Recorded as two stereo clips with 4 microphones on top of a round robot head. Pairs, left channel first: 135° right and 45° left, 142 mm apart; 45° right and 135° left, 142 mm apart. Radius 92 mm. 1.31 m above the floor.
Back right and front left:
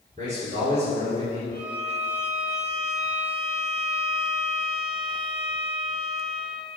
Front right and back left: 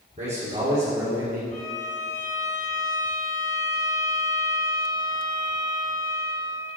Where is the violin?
10° right, 2.5 m.